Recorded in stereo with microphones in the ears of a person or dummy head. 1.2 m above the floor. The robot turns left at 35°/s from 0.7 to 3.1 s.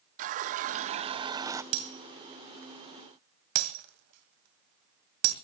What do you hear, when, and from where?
0.2 s a running tap: 125° right, 0.5 m; by 1.6 s 160° right, 0.5 m
1.7 s breaking glass: 55° right (ahead or behind), 2 m; by 5.3 s 60° right (ahead or behind), 2 m